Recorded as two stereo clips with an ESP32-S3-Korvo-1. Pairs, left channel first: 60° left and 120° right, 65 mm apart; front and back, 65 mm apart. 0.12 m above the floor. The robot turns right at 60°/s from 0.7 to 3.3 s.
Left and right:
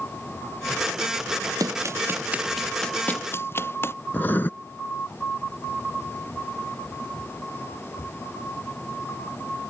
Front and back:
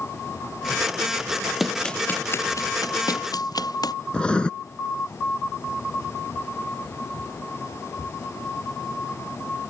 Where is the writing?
60° left.